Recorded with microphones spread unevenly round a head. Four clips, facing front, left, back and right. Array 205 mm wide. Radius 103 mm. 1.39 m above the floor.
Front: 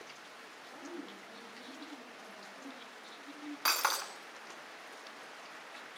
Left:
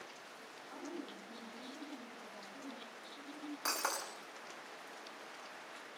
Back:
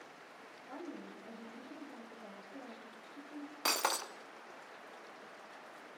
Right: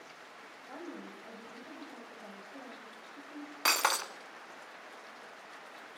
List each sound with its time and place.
0.7 s a woman speaking: 145° right, 8.5 m
3.6 s breaking glass: 110° right, 1.3 m